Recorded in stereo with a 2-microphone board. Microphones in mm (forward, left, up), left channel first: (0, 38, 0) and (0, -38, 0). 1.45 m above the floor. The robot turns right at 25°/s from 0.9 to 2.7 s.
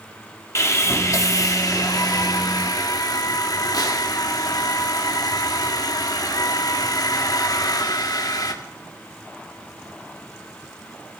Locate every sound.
0.6 s sawing: 50° left, 1.4 m; by 8.5 s 95° left, 1.4 m